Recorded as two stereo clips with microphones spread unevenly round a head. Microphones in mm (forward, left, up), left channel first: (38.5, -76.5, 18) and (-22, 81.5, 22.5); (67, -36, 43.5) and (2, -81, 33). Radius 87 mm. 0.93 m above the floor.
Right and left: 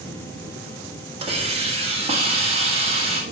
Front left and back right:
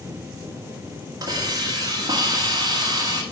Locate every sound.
1.2 s a hiss: 170° left, 1.3 m